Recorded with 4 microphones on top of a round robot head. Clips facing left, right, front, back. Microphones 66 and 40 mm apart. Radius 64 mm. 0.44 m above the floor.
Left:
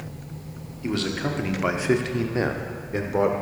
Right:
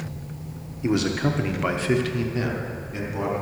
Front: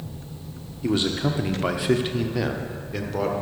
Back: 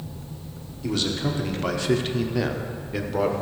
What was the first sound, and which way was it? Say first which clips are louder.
A man speaking: right 4 dB, front 3 dB; 40° right.